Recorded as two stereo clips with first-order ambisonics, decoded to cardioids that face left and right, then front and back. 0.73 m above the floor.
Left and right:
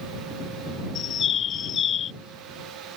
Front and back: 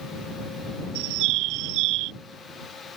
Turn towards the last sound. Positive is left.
turn(degrees=150)